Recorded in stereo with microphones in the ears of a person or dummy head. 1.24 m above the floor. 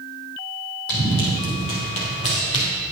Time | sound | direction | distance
0.9 | running footsteps | 50° left (ahead or behind) | 3 m